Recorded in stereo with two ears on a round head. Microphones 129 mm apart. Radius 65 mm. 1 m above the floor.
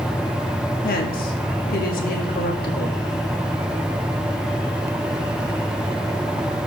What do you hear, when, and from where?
0.8 s a woman speaking: 65° left (ahead or behind), 1.5 m